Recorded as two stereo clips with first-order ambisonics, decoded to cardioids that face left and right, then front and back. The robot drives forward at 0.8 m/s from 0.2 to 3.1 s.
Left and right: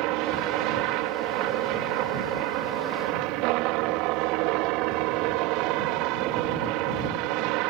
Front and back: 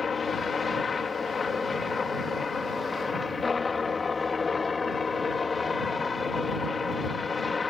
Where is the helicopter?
70° right; by 7.7 s 75° right.